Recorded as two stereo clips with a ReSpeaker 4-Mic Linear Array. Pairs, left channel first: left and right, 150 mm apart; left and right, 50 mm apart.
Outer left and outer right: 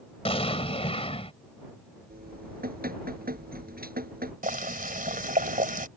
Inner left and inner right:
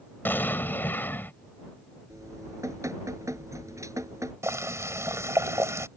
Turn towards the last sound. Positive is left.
turn(degrees=-70)  # may be behind; listen again after turning